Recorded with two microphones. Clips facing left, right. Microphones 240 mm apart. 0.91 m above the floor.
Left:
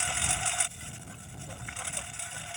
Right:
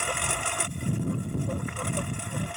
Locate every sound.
0.0 s a lawn mower: 55° right (ahead or behind)